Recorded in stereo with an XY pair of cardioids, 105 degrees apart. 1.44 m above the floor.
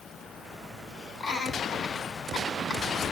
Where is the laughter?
65° left, 6.5 m.